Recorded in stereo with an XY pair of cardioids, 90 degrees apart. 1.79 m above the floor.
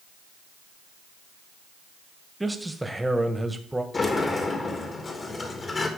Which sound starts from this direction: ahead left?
A sliding door, at 3.9 s.